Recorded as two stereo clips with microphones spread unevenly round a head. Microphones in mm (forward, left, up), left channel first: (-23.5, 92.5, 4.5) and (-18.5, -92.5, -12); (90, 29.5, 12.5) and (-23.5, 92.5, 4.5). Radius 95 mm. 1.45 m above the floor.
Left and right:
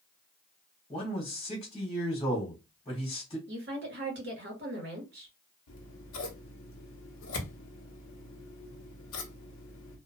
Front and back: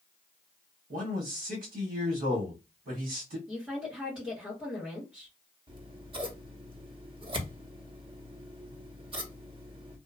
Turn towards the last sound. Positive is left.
turn(degrees=105)